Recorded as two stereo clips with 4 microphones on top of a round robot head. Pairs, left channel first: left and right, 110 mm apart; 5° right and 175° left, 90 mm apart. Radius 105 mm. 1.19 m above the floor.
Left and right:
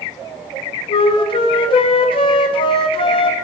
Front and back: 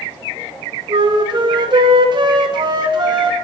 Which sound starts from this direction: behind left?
A flute, at 0.9 s.